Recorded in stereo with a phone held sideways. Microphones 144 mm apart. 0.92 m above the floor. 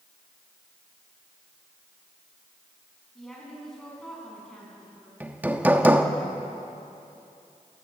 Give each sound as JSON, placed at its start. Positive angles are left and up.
{"t": 3.1, "sound": "a woman speaking", "side_deg": 5, "distance_m": 8.5}
{"t": 5.2, "sound": "hammering", "side_deg": -15, "distance_m": 1.4}